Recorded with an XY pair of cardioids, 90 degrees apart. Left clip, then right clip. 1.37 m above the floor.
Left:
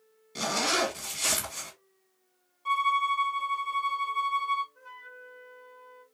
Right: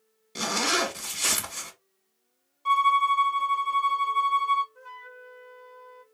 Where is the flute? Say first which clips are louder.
Right 3 dB; 40° right, 0.7 m.